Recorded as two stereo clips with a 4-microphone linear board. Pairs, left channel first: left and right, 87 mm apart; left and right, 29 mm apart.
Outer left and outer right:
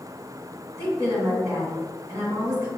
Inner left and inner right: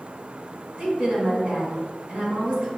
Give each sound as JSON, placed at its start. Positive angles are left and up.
{"t": 0.8, "sound": "a woman speaking", "side_deg": -35, "distance_m": 1.8}